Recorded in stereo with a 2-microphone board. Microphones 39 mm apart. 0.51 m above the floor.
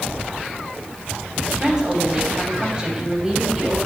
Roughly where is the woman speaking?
Right.